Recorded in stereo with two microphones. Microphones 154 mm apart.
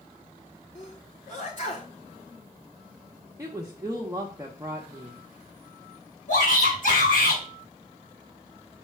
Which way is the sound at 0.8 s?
55° left (ahead or behind).